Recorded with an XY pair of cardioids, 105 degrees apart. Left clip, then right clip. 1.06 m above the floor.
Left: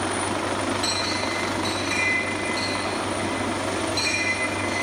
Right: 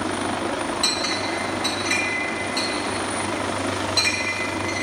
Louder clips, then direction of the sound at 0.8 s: Right 2 dB; 45° right.